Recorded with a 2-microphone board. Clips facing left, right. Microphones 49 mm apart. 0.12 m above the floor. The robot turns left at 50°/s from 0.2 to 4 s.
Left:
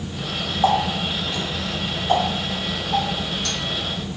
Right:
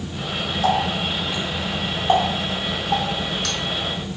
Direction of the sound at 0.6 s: 35° left (ahead or behind).